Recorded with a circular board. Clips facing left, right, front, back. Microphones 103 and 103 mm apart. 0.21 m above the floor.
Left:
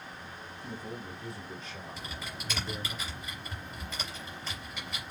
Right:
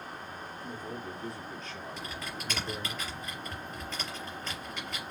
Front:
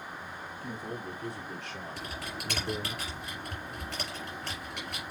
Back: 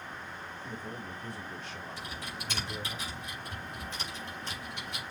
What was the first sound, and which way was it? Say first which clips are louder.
A man speaking: even, front 4 dB; 10° left.